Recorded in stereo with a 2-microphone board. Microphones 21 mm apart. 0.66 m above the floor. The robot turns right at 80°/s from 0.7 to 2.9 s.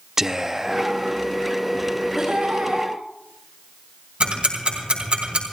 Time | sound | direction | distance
0.2 | whispering | 20° right (ahead or behind) | 0.5 m
2.1 | laughter | 155° right | 8 m
4.2 | ticking | 50° right (ahead or behind) | 3.5 m